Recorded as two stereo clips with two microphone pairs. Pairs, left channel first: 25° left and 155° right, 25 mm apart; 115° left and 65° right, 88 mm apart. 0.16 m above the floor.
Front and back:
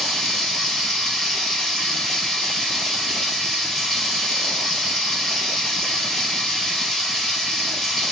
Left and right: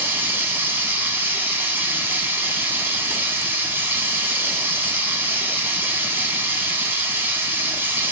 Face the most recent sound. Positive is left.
turn(degrees=-50)